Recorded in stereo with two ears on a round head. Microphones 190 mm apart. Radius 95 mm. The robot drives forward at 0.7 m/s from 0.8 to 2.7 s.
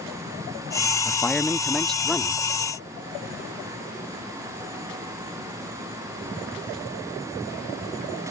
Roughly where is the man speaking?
Centre.